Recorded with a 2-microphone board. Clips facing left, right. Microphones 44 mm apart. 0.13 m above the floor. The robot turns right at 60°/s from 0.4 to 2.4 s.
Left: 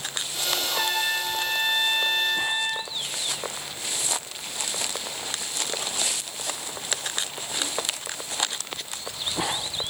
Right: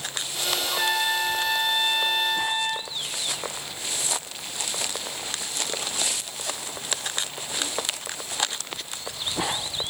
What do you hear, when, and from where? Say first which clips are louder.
0.6 s a trumpet: right 2 dB; 15° left, 2 m; by 2.9 s 120° left, 2 m